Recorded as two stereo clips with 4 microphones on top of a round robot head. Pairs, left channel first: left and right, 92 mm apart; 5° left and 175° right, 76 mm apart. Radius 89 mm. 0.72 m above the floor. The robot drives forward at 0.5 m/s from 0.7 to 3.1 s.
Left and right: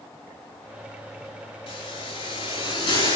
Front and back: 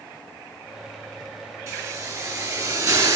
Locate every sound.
1.7 s a hiss: 135° left, 5.5 m; by 3.2 s 140° left, 6 m